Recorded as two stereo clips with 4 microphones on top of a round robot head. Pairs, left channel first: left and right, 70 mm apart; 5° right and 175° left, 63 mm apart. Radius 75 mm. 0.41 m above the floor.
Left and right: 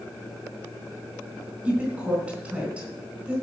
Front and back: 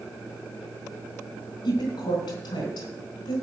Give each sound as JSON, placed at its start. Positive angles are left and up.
{"t": 1.6, "sound": "a woman speaking", "azimuth_deg": -15, "distance_m": 4.0}